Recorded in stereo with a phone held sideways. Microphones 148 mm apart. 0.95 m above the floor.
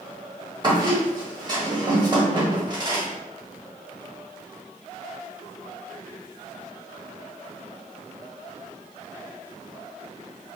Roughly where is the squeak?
Right.